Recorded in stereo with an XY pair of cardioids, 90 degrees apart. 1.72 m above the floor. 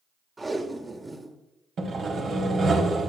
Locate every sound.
0.4 s tape being pulled: 30° right, 1.5 m
1.8 s sawing: 60° right, 1.4 m